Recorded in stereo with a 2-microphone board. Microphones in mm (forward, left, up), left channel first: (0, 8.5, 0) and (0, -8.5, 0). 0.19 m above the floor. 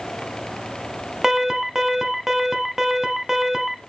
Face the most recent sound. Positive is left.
turn(degrees=-25)  # may be behind; listen again after turning